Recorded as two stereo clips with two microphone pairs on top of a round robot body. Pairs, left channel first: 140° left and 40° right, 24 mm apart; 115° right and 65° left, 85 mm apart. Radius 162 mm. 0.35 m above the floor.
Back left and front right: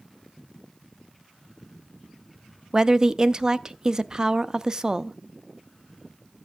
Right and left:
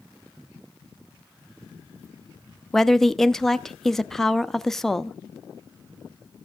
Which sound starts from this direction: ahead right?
A woman speaking, at 2.7 s.